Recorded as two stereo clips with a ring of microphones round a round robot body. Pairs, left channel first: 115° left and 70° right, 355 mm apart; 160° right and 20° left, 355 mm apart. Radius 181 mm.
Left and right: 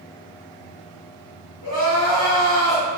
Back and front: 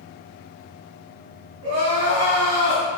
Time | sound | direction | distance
1.6 | crying | 60° left | 1.5 m